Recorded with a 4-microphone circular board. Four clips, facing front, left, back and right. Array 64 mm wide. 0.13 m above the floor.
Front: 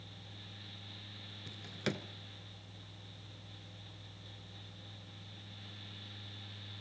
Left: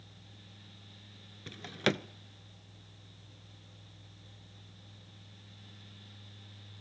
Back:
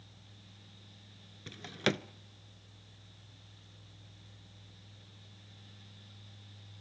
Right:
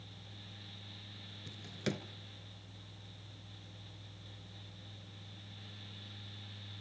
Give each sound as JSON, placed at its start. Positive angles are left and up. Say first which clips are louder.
{"t": 1.5, "sound": "a drawer", "louder": "left 8 dB, back 6 dB", "azimuth_deg": 120, "distance_m": 0.7}